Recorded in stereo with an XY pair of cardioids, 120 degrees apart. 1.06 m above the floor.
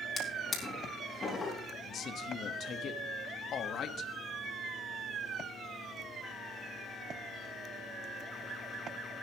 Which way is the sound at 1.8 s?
55° left.